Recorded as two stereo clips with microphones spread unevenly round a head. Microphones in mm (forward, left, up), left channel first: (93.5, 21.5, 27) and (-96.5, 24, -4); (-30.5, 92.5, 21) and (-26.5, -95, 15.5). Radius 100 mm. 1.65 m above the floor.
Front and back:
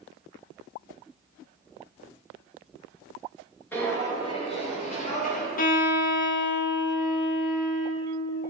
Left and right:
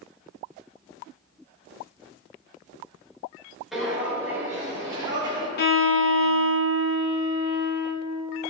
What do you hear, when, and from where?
3.7 s footsteps: 5° left, 1.6 m; by 5.5 s 20° right, 2.5 m
5.6 s a violin: 45° left, 0.8 m